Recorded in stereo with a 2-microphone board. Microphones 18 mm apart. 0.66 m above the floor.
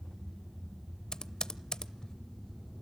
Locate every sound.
1.1 s typing on a keyboard: 55° left (ahead or behind), 0.6 m